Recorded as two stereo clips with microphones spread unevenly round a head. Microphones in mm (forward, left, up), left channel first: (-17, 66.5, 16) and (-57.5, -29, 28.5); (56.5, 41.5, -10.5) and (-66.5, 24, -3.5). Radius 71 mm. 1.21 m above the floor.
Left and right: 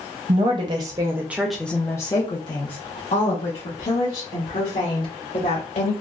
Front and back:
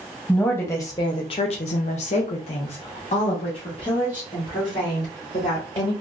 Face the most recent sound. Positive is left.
turn(degrees=65)